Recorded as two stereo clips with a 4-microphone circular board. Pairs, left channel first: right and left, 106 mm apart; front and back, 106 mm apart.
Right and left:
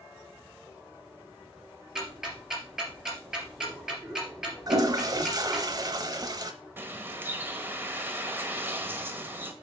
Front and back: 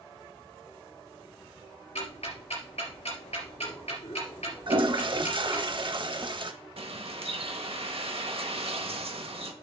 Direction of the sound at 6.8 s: 160° left.